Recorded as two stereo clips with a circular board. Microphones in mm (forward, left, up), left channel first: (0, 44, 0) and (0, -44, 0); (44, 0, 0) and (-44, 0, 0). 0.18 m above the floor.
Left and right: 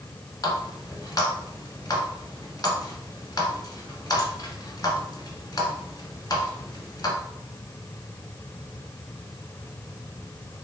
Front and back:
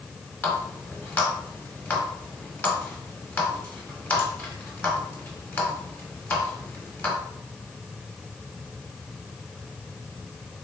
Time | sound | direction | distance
0.4 | a running tap | 65° left | 1.2 m